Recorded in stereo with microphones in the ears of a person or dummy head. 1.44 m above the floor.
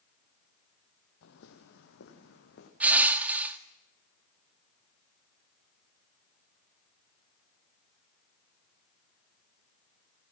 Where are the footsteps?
65° left (ahead or behind), 3.5 m; by 2.7 s 60° left (ahead or behind), 5.5 m.